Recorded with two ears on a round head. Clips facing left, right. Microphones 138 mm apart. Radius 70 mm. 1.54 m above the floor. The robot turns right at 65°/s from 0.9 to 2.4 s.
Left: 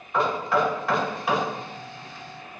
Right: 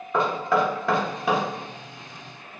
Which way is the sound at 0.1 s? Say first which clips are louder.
Right 1 dB; 80° right.